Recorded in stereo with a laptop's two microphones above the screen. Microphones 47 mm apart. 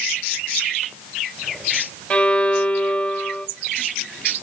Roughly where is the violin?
Left.